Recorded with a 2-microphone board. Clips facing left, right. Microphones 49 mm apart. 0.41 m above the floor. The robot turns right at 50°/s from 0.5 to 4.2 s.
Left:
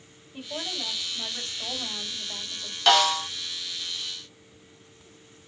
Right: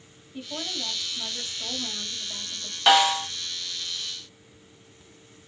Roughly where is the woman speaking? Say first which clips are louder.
Even; ahead.